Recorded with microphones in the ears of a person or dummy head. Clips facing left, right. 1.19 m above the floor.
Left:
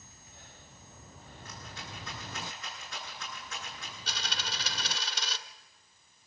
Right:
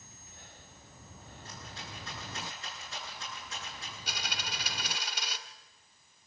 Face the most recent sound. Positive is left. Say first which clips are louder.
# left 1 dB
turn(degrees=-10)  # may be behind; listen again after turning